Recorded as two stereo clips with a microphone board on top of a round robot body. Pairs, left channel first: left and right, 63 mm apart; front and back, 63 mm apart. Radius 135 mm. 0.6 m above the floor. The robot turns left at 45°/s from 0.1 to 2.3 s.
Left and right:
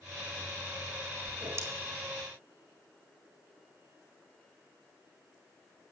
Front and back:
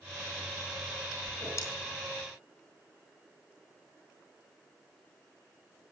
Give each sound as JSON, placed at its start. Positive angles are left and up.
{"t": 1.3, "sound": "a whoosh", "azimuth_deg": -30, "distance_m": 2.5}